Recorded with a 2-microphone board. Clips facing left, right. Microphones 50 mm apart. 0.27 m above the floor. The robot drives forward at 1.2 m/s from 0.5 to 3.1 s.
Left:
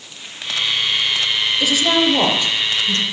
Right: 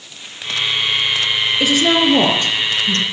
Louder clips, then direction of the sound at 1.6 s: Right 2 dB; 45° right (ahead or behind).